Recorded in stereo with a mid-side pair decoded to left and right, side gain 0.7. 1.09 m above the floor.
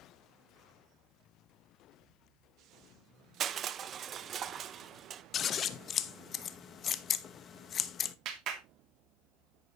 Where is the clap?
50° right, 2.5 m.